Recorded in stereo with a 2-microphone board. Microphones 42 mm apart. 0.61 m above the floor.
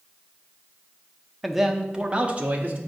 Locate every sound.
1.4 s a man speaking: centre (ahead or behind), 0.6 m; by 2.8 s 40° right (ahead or behind), 1.0 m